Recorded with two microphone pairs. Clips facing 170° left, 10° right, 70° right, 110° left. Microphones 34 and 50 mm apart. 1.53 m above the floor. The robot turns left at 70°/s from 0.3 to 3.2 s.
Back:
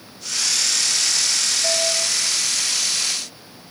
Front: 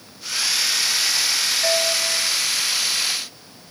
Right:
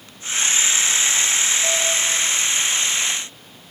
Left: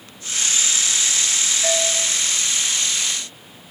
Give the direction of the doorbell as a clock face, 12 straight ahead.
11 o'clock.